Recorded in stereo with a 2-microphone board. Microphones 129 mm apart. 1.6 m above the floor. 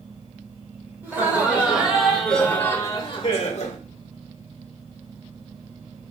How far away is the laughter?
About 1.4 m.